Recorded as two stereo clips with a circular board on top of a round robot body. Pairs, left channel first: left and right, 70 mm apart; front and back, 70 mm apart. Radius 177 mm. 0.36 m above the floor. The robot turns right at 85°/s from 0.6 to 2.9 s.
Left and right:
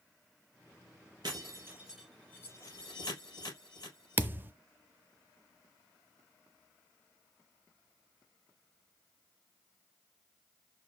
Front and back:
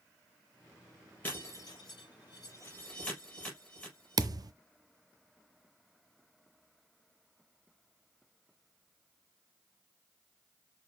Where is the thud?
150° right, 0.6 m.